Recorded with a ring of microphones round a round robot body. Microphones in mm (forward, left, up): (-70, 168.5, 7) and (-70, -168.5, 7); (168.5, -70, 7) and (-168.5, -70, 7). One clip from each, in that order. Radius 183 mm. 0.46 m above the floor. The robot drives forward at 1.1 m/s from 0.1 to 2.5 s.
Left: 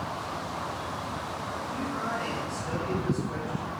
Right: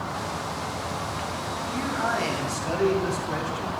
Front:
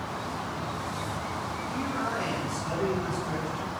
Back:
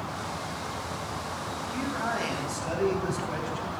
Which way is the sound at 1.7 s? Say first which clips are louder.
Right 7 dB, back 1 dB; 110° right.